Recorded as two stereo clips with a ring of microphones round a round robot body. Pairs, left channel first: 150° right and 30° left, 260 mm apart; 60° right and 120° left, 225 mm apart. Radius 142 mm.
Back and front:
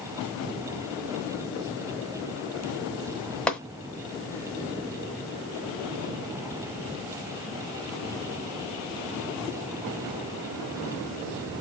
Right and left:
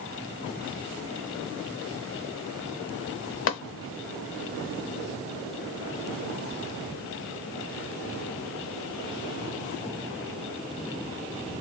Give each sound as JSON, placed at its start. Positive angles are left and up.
{"t": 3.5, "sound": "tapping", "azimuth_deg": -65, "distance_m": 0.8}